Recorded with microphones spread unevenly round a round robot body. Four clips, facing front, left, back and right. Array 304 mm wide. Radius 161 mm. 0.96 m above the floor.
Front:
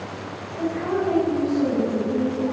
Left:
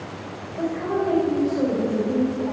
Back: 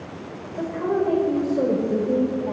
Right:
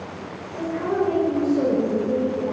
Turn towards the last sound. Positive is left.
turn(degrees=-170)